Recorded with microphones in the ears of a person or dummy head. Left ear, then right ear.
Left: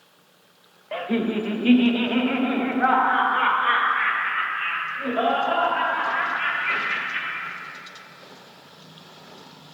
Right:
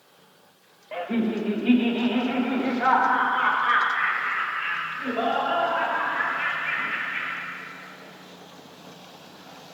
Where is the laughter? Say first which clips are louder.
Left 2 dB; 15° left (ahead or behind), 0.8 m; by 7.4 s 30° left (ahead or behind), 4 m.